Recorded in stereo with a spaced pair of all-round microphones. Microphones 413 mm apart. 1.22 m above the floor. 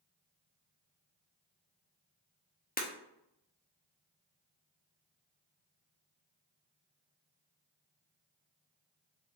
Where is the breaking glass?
20° left (ahead or behind), 0.5 m.